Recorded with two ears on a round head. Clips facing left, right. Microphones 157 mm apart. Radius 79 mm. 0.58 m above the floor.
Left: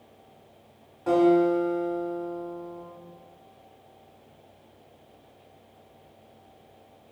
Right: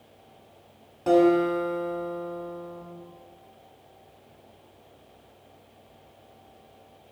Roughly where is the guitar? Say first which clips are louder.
Even; right.